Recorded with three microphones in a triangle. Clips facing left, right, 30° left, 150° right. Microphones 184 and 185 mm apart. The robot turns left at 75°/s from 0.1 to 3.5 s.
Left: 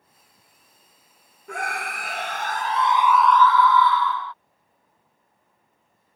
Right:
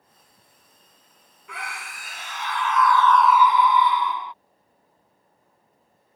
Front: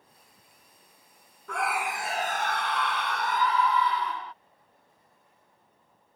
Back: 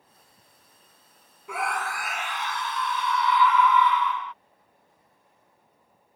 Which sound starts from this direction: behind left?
A scream, at 1.5 s.